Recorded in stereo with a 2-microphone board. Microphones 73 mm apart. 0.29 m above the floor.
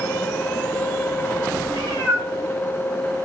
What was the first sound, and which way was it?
A cat meowing, 40° left (ahead or behind).